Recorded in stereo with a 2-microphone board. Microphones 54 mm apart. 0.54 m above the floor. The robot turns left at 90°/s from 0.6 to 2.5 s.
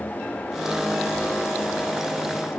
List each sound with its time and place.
Only background noise.